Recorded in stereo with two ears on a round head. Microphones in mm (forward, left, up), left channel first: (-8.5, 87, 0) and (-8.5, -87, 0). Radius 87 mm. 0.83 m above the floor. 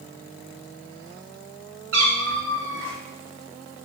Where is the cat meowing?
65° right (ahead or behind), 2.0 m; by 3.0 s 75° right (ahead or behind), 2.5 m.